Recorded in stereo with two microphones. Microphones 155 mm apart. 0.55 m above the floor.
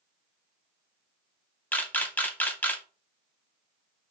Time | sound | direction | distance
1.7 | a camera shutter | 10° left (ahead or behind) | 0.7 m